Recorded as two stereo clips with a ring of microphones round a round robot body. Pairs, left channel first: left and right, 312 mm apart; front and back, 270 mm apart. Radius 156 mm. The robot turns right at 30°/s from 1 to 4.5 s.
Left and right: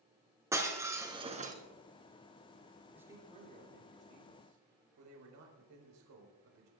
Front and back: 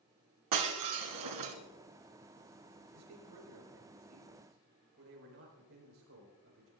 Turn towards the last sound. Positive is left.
turn(degrees=-130)